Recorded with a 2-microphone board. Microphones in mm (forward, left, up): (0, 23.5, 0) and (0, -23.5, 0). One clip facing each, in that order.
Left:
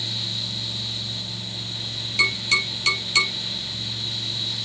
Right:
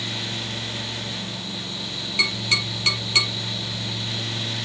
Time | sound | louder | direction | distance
2.2 | tapping | left 3 dB | 15° right (ahead or behind) | 6 m